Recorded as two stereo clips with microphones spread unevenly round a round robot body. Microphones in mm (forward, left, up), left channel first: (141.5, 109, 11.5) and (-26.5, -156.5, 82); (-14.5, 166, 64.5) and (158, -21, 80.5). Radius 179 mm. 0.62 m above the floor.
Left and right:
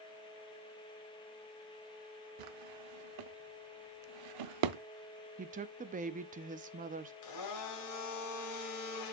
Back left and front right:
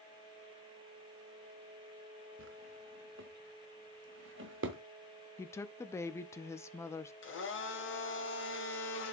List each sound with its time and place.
2.4 s a drawer: 105° right, 0.6 m
5.4 s a woman speaking: straight behind, 0.6 m
7.2 s a blender: 90° left, 2.5 m